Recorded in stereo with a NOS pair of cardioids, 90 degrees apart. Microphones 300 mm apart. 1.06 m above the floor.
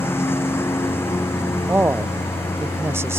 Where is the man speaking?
10° right.